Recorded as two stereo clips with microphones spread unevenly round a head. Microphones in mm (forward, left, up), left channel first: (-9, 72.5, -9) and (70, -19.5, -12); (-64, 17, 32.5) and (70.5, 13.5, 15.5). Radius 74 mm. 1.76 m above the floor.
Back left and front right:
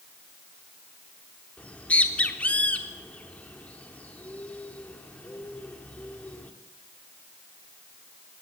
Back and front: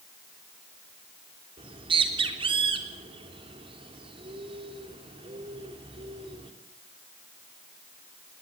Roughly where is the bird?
Ahead left.